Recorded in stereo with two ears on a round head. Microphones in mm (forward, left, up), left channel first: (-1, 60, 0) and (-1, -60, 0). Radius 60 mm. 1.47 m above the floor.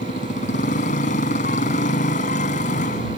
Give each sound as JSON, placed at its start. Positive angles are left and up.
{"t": 0.0, "sound": "a motorcycle", "side_deg": 60}